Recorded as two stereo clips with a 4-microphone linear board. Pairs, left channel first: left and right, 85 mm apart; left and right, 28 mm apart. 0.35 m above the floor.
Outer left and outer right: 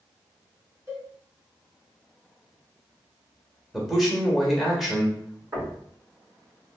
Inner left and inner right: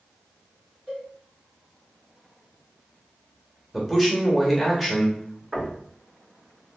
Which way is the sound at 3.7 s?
Centre (ahead or behind).